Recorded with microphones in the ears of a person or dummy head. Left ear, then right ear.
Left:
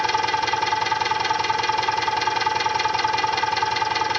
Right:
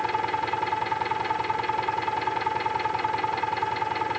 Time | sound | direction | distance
0.0 | an engine running | 85° left | ?